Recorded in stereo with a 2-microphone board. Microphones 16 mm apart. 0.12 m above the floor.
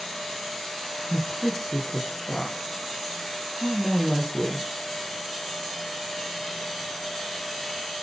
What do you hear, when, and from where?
1.1 s a woman speaking: 15° right (ahead or behind), 3.5 m